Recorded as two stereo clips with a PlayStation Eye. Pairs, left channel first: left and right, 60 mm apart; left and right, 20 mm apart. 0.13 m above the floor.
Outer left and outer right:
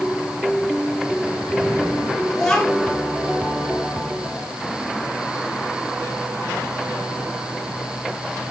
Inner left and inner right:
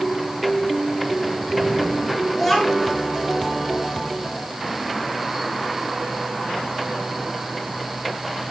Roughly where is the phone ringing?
No phone ringing in this recording.